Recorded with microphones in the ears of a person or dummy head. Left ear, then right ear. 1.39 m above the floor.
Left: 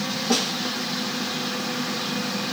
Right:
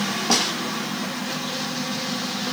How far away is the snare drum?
About 1.0 m.